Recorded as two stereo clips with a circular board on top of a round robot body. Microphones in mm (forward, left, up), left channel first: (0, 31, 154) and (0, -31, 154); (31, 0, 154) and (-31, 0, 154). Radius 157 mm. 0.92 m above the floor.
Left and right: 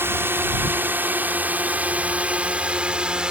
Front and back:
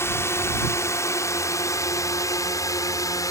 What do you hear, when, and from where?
0.0 s a drone: 40° right; by 3.3 s 15° right